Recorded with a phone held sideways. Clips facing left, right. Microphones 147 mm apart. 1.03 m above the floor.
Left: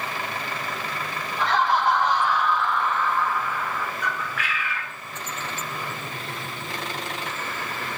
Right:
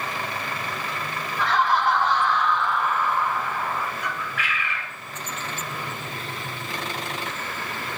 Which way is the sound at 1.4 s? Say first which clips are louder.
Even; 25° left (ahead or behind).